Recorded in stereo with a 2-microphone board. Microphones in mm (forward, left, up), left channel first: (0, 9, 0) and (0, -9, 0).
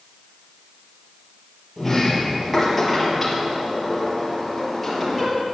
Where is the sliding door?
5° left (ahead or behind), 3.5 m.